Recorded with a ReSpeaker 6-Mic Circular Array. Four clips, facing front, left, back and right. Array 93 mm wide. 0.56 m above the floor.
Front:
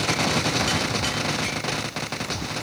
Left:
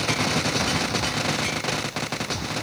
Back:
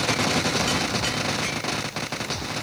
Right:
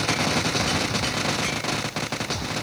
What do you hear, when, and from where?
Only background noise.